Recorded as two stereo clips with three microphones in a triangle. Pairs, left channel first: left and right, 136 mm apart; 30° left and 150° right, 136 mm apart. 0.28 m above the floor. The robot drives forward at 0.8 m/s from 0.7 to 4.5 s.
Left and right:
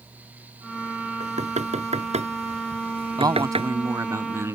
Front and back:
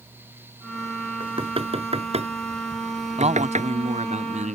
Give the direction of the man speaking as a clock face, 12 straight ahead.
5 o'clock.